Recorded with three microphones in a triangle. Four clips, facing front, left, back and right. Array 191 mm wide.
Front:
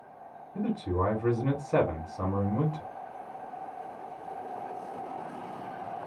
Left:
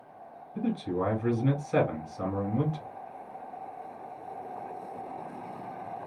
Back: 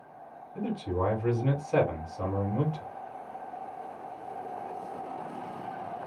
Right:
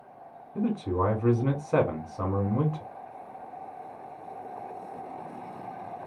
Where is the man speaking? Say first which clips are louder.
Right 2 dB, front 1 dB; 70° right, 1.9 m.